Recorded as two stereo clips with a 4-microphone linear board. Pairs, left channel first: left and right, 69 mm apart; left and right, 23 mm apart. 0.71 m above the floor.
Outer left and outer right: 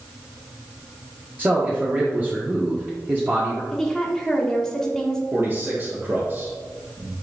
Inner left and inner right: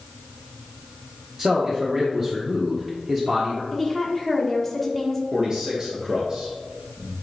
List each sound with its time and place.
1.4 s a man speaking: 25° right (ahead or behind), 1.1 m
3.7 s a woman speaking: 5° left (ahead or behind), 1.4 m
5.3 s a man speaking: 30° right (ahead or behind), 1.6 m